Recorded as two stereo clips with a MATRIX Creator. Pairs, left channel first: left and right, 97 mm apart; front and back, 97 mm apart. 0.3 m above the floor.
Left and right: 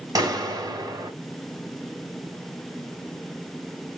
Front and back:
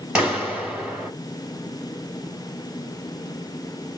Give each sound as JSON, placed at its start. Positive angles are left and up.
{"t": 0.1, "sound": "a clap", "azimuth_deg": -105, "distance_m": 1.6}